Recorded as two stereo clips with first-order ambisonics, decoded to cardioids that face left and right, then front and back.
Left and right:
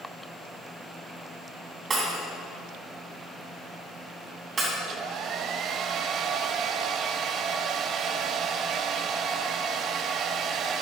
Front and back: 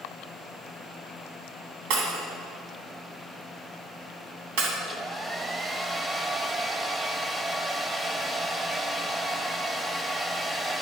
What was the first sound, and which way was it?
Breaking glass, 165° right.